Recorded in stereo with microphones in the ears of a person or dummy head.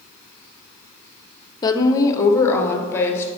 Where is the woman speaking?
25° left (ahead or behind), 0.7 m; by 3.3 s 10° left (ahead or behind), 1.5 m.